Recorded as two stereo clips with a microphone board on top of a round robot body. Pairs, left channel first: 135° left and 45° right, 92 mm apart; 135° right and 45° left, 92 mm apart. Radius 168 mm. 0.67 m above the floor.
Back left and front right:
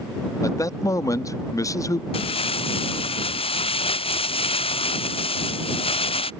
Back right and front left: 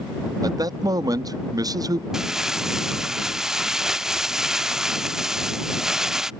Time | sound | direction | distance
0.4 | a man speaking | 85° left | ?
2.1 | crumpling | 130° left | ?